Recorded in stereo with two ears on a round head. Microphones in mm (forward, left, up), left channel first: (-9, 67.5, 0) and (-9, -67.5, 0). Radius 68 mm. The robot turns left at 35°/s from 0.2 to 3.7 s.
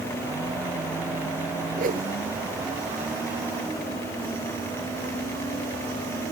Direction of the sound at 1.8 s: 50° right (ahead or behind).